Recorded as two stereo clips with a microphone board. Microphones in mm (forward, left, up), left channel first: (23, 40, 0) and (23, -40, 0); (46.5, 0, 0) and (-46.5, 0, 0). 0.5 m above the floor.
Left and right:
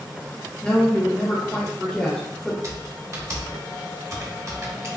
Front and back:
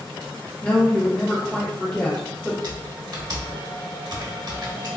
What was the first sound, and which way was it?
A woman speaking, 35° left.